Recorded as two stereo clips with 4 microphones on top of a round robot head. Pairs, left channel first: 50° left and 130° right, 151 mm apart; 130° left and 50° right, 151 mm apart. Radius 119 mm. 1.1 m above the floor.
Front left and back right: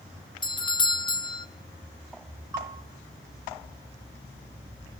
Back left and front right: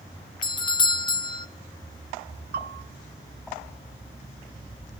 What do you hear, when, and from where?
0.4 s a doorbell: 90° left, 0.9 m
2.5 s a bell: 60° right, 1.1 m